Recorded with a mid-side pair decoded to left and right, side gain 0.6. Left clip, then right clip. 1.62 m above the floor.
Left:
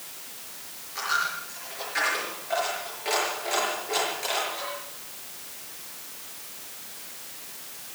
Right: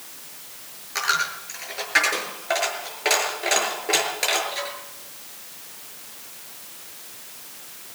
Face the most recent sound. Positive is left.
turn(degrees=-60)